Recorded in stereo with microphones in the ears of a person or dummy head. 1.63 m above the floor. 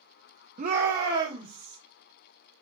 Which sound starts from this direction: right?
A shout, at 0.6 s.